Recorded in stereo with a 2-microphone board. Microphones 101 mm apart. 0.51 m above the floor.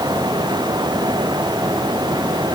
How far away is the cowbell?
I don't hear a cowbell.